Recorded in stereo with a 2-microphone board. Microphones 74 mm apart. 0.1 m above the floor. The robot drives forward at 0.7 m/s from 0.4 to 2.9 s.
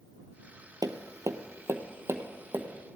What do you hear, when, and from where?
0.8 s tapping: 60° right (ahead or behind), 0.8 m; by 2.7 s 25° right (ahead or behind), 1.6 m